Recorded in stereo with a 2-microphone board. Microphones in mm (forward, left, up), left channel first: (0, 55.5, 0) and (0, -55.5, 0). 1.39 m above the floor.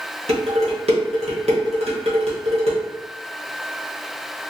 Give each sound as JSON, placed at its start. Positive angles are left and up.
{"t": 0.3, "sound": "dishes clattering", "side_deg": -65, "distance_m": 1.0}